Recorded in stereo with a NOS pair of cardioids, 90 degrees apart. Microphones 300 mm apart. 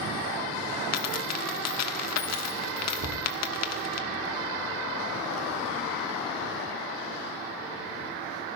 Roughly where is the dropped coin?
Ahead left.